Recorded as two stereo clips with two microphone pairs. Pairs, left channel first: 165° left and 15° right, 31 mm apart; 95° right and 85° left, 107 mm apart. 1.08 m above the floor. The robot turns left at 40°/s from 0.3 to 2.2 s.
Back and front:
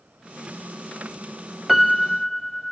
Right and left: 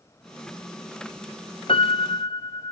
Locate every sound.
1.7 s a piano: 100° right, 0.9 m; by 2.7 s 120° right, 0.9 m